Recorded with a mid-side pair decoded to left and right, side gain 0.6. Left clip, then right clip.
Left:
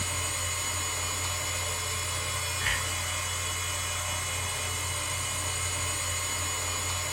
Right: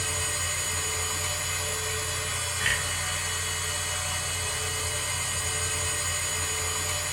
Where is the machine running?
60° right, 1.1 m.